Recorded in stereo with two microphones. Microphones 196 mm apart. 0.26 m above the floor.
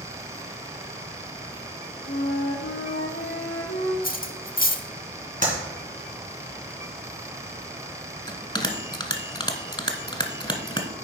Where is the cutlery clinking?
45° left (ahead or behind), 0.7 m.